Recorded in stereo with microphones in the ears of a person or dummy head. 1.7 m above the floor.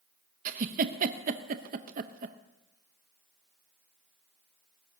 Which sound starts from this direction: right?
A giggle, at 0.5 s.